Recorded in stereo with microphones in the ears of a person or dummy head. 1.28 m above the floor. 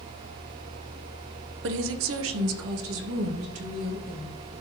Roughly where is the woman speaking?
Right.